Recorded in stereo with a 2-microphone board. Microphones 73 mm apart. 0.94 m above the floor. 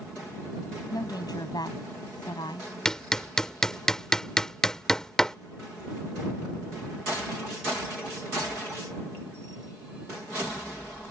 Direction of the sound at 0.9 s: 65° left (ahead or behind).